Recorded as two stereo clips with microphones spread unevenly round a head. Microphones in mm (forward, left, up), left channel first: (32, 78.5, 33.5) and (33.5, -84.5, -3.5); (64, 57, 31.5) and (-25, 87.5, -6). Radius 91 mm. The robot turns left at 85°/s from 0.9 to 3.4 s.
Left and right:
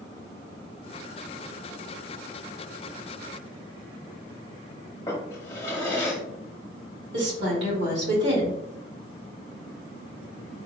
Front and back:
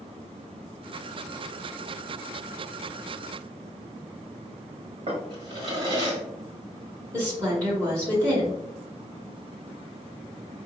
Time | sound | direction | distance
5.1 | a drawer | 145° left | 1.3 m
7.1 | a woman speaking | 120° right | 2 m